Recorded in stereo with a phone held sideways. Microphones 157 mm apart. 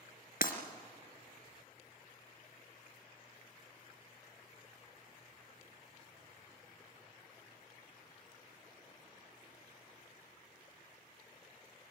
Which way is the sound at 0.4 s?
65° left (ahead or behind).